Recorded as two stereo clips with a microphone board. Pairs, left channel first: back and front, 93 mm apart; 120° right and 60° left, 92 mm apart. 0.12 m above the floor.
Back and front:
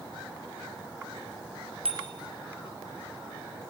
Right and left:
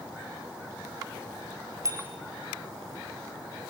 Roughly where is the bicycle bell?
Ahead.